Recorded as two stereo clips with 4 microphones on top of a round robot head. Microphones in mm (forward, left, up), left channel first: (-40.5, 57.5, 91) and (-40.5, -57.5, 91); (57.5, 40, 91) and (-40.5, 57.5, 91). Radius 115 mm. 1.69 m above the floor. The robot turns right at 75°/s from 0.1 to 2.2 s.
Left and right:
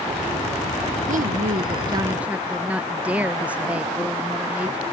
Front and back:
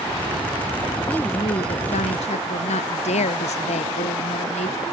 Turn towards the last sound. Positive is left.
turn(degrees=-10)